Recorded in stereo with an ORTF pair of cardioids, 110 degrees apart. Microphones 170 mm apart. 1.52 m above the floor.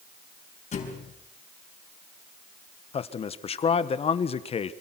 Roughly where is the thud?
Ahead left.